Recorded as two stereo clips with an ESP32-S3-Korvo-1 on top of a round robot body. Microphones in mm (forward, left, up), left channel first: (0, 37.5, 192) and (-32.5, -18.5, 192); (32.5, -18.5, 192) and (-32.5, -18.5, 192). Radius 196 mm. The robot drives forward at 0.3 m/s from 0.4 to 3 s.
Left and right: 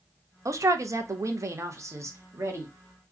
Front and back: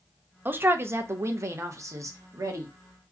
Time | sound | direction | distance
0.5 | a man speaking | 130° right | 0.7 m